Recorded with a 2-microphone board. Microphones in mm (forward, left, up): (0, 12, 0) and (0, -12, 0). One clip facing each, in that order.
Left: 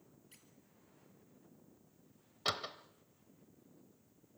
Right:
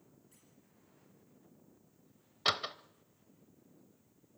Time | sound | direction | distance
0.3 | a squeak | 65° left (ahead or behind) | 4 m
2.5 | a door slam | 30° right (ahead or behind) | 0.8 m